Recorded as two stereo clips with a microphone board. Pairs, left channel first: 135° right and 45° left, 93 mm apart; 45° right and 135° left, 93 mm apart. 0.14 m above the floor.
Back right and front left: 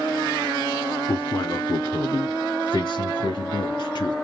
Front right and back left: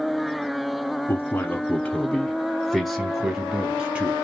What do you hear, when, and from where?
1.1 s a man speaking: 85° right, 1.3 m; by 4.2 s 160° right, 1.9 m